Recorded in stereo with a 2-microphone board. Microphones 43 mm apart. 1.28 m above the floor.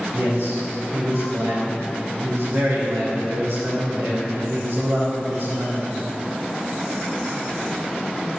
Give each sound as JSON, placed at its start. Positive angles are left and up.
{"t": 0.1, "sound": "a man speaking", "side_deg": -85, "distance_m": 4.0}